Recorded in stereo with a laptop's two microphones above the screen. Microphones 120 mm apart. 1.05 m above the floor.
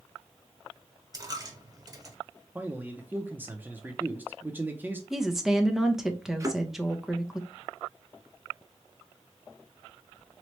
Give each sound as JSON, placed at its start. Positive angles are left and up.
{"t": 1.1, "sound": "a dropped coin", "side_deg": -30, "distance_m": 1.0}
{"t": 2.5, "sound": "a man speaking", "side_deg": -15, "distance_m": 0.5}
{"t": 5.1, "sound": "a woman speaking", "side_deg": -5, "distance_m": 0.8}
{"t": 6.4, "sound": "a thud", "side_deg": -25, "distance_m": 1.4}